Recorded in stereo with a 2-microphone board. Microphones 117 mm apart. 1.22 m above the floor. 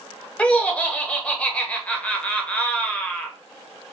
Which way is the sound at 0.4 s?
10° left (ahead or behind).